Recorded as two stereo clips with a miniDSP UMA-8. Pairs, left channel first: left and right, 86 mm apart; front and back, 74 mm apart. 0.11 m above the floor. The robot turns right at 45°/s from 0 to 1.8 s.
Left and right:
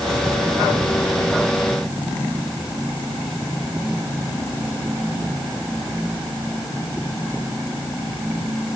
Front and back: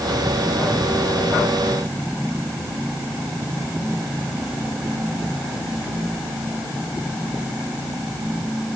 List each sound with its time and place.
Only background noise.